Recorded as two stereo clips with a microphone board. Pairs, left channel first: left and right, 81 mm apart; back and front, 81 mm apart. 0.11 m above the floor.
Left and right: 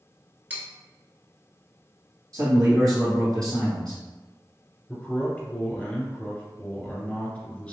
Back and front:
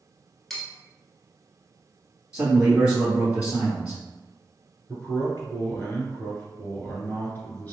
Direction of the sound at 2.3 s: 70° right.